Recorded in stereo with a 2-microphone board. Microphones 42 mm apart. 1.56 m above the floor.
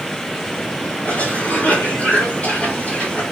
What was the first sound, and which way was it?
A cough, 35° left (ahead or behind).